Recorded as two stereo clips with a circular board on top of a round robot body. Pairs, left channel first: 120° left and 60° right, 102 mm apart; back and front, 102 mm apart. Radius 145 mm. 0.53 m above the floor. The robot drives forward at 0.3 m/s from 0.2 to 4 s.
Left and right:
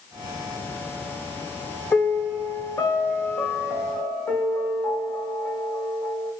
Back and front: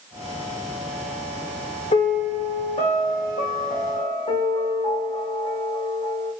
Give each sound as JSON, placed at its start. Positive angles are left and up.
{"t": 1.9, "sound": "a piano", "azimuth_deg": -165, "distance_m": 0.6}